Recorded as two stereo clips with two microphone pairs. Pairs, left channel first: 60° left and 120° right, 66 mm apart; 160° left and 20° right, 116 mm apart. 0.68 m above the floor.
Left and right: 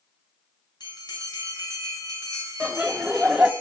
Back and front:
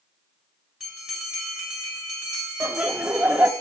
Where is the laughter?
75° right, 0.5 m.